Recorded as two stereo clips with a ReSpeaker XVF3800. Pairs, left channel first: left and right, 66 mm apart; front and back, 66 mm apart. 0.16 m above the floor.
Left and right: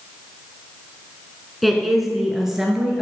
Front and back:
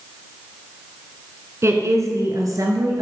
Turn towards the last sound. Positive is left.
turn(degrees=-170)